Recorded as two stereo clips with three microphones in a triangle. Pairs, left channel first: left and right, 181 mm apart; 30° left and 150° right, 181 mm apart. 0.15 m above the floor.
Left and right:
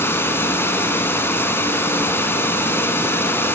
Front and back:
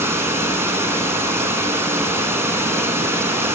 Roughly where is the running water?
Behind left.